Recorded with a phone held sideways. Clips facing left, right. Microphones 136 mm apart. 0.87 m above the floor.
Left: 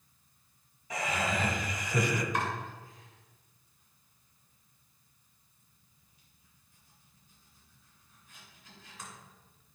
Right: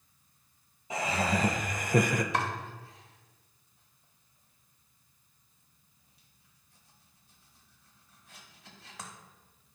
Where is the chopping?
80° right, 1.3 m.